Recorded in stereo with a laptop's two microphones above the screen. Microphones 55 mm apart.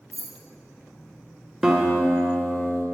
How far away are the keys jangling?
About 0.9 m.